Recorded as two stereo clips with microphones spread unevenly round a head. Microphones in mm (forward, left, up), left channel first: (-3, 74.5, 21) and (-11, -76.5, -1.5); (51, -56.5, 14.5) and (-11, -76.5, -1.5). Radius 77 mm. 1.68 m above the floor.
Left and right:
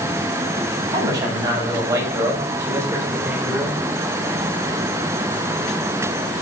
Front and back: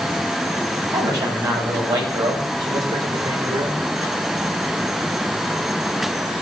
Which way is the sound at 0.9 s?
160° right.